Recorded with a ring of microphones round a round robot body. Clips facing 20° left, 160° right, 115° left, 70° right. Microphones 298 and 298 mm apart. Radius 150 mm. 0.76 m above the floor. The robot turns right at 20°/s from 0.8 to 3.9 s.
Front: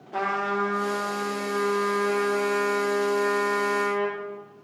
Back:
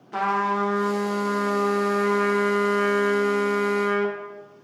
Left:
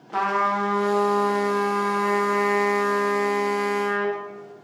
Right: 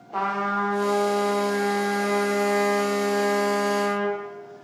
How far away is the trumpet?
About 1.4 m.